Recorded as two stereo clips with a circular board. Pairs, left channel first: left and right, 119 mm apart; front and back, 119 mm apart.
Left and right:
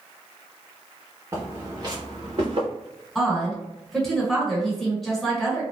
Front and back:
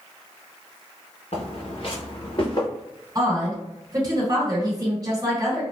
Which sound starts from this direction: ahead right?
Footsteps, at 1.3 s.